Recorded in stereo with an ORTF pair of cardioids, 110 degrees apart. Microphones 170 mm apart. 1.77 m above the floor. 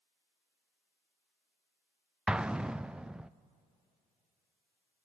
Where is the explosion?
5° right, 0.5 m.